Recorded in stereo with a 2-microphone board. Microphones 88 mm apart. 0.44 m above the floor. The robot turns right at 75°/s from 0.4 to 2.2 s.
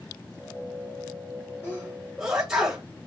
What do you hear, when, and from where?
1.6 s a sneeze: 20° left (ahead or behind), 1.8 m; by 2.8 s 15° right (ahead or behind), 1.8 m